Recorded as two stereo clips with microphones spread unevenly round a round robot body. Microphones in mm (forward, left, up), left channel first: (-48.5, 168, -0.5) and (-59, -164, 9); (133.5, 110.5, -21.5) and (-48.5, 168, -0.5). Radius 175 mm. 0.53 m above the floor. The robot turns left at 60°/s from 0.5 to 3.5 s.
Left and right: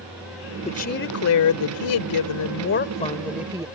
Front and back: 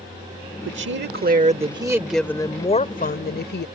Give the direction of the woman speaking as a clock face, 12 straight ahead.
7 o'clock.